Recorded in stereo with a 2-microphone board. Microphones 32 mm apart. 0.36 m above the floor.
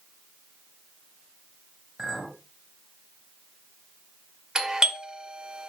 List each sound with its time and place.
2.0 s a clink: 5° right (ahead or behind), 5 m
4.5 s a doorbell: 20° right (ahead or behind), 1.5 m